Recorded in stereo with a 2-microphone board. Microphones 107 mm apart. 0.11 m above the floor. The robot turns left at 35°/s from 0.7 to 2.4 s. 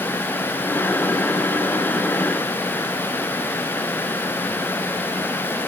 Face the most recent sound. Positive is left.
No sound to turn to.